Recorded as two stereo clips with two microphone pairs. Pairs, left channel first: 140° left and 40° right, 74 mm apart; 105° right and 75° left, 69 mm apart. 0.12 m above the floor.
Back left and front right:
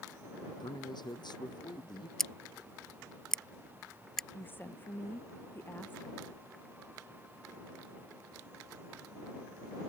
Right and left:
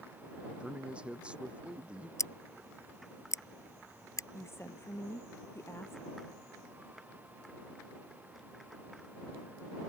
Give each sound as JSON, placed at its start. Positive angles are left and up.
{"t": 0.6, "sound": "a man speaking", "azimuth_deg": 145}
{"t": 2.2, "sound": "scissors", "azimuth_deg": -135}
{"t": 4.3, "sound": "a woman speaking", "azimuth_deg": -155}